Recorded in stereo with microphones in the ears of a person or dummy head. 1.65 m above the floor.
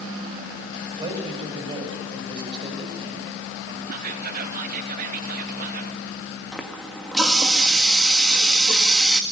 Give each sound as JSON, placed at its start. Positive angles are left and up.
{"t": 1.0, "sound": "a man speaking", "side_deg": -20, "distance_m": 7.5}
{"t": 3.9, "sound": "whispering", "side_deg": -45, "distance_m": 1.2}
{"t": 6.5, "sound": "a running tap", "side_deg": 5, "distance_m": 1.8}